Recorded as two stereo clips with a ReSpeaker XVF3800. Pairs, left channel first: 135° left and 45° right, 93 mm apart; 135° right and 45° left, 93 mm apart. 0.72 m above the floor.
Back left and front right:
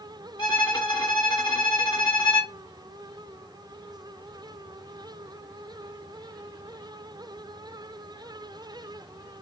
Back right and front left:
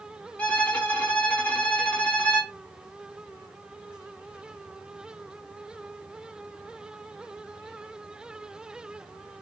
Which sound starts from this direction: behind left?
A violin, at 0.4 s.